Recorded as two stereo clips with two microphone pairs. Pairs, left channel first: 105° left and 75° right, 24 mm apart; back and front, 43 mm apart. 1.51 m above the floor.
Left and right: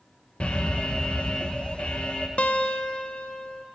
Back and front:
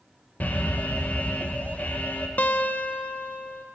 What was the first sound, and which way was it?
An alarm, 135° left.